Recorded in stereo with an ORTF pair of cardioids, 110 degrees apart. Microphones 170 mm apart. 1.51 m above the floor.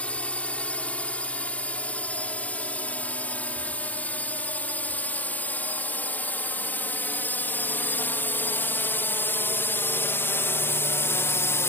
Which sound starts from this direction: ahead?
A drone, at 0.0 s.